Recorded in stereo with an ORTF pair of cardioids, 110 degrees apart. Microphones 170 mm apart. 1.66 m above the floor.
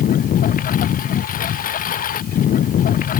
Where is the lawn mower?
55° left.